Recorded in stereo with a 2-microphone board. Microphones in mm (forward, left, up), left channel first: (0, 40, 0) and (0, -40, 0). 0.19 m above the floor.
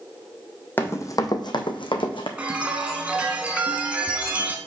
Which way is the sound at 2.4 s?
15° right (ahead or behind).